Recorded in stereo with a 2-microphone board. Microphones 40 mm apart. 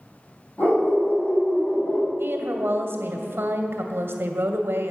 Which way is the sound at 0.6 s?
40° left (ahead or behind).